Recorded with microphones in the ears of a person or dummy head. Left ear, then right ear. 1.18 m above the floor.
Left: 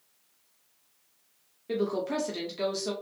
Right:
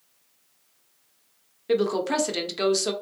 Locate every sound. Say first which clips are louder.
1.7 s a woman speaking: right 6 dB; 30° right (ahead or behind), 0.6 m